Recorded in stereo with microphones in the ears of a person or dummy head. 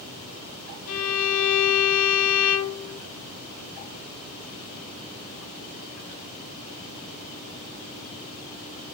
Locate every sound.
0.9 s a violin: 80° left, 0.9 m